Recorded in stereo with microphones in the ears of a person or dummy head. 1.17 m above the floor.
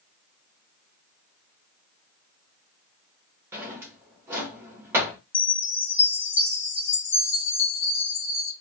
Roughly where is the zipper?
I don't hear a zipper.